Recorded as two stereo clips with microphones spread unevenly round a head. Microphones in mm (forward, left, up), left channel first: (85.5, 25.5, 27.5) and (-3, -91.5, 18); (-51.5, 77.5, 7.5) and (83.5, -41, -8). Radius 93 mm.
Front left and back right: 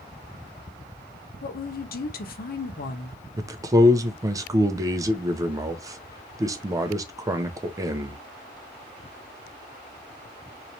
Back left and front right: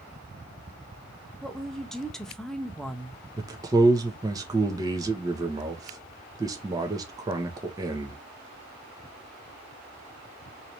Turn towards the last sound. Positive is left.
turn(degrees=-85)